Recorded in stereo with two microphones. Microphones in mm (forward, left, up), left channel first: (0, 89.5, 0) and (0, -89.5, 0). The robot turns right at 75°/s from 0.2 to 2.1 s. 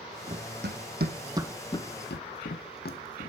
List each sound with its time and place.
0.3 s running footsteps: 40° right (ahead or behind), 1.1 m; by 3.3 s 55° left (ahead or behind), 1.1 m